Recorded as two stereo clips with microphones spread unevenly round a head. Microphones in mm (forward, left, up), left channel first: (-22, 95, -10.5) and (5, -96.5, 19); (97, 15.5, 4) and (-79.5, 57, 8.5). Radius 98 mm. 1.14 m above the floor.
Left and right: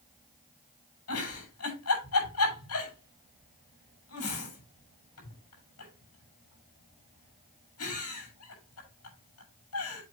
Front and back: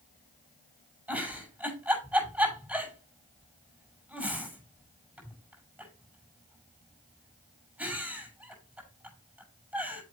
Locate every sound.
1.1 s a giggle: 85° left, 6.5 m